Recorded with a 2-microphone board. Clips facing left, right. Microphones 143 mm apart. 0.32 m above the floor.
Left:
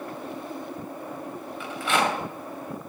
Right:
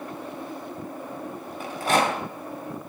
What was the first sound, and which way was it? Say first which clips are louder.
A rattle: right 2 dB; 40° right (ahead or behind).